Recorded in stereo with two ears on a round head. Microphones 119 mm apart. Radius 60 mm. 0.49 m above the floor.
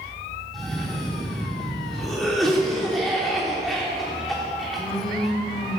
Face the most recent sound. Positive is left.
turn(degrees=0)  # may be behind; listen again after turning